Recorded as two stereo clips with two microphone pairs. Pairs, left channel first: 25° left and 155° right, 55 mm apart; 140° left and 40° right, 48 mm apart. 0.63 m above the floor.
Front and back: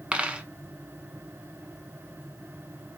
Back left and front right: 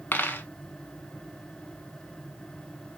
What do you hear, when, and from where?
0.1 s a dropped coin: 145° left, 0.7 m